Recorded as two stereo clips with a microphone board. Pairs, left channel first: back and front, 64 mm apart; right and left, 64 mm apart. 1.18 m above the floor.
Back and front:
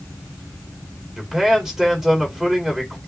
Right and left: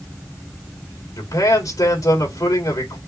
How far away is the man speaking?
About 3.5 m.